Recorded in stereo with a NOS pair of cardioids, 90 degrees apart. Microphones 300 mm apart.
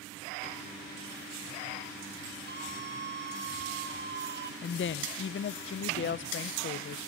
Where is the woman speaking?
40° left, 0.9 m.